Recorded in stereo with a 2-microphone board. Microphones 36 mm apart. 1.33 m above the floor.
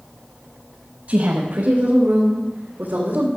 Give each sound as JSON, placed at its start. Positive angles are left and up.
{"t": 1.1, "sound": "a woman speaking", "side_deg": -70, "distance_m": 1.2}